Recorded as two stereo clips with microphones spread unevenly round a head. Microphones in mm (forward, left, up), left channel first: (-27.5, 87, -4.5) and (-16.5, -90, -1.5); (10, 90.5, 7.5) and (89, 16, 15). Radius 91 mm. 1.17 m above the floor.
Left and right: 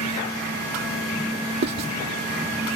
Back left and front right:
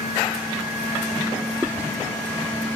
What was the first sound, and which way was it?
Writing, 125° right.